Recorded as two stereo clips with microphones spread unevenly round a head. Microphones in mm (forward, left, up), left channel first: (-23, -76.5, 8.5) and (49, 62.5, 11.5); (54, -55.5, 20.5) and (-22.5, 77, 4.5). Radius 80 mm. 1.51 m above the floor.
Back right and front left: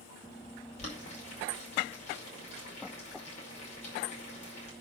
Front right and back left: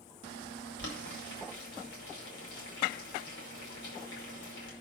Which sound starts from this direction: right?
Boiling, at 0.8 s.